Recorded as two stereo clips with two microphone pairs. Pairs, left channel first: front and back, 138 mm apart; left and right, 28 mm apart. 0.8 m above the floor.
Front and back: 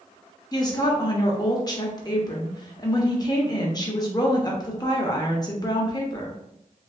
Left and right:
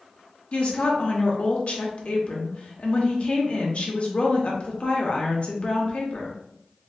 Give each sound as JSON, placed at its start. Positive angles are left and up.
{"t": 0.5, "sound": "a woman speaking", "azimuth_deg": 55, "distance_m": 0.7}